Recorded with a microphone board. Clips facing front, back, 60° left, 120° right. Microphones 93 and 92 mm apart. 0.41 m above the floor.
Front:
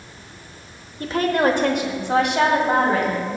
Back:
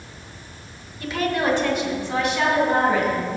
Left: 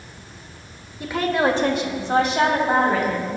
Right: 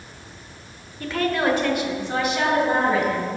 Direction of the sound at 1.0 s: 15° right.